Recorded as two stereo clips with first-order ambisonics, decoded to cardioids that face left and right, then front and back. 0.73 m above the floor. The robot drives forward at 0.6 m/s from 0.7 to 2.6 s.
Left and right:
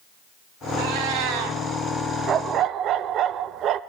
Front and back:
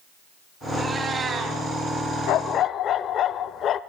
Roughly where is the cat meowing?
Right.